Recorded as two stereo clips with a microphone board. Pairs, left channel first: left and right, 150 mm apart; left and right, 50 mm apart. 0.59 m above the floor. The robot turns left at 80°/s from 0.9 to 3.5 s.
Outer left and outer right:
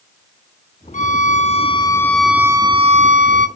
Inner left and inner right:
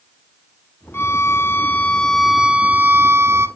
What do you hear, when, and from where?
0.9 s a violin: 100° left, 1.2 m; by 3.5 s 100° right, 1.2 m